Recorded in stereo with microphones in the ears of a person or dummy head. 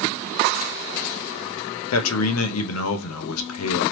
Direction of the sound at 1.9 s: 85° left.